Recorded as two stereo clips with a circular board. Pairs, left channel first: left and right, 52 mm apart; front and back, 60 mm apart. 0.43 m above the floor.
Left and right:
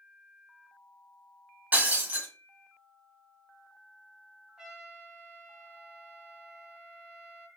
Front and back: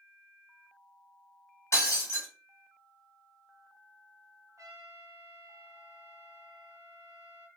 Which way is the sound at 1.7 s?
30° right.